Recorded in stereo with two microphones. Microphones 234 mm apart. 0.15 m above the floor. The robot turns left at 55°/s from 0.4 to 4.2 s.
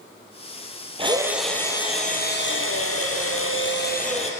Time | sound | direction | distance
1.0 | a drill | 155° right | 2 m